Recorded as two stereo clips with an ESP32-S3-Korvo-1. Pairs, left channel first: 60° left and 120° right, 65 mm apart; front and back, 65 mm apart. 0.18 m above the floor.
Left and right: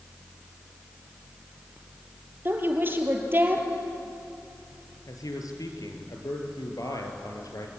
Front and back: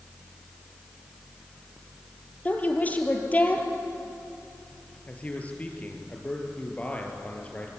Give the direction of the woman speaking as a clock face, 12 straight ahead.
2 o'clock.